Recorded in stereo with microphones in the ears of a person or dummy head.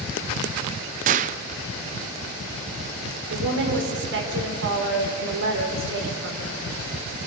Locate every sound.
1.1 s a gunshot: 35° right (ahead or behind), 0.6 m
3.3 s a woman speaking: 70° right (ahead or behind), 4 m